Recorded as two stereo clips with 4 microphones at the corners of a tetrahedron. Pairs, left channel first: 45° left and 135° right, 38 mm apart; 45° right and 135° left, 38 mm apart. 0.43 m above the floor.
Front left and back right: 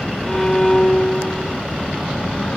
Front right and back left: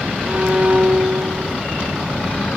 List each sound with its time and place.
0.3 s a violin: 110° left, 1.6 m